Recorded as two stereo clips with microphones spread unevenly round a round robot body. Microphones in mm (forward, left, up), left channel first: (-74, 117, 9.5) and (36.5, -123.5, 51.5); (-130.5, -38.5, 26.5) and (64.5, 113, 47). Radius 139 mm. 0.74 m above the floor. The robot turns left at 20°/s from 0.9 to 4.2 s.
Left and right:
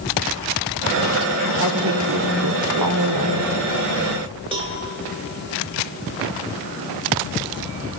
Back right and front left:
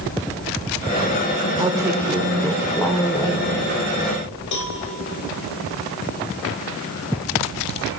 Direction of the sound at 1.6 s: 40° right.